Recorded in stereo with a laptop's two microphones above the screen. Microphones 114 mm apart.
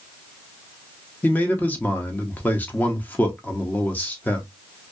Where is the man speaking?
15° left (ahead or behind), 0.7 m.